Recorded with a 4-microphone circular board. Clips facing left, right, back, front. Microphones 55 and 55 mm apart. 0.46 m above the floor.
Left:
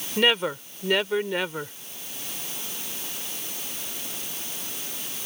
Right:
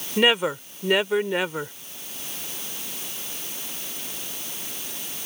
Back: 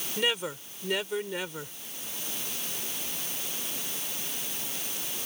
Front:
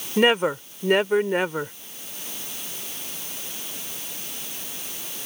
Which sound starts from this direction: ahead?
A woman speaking, at 0.2 s.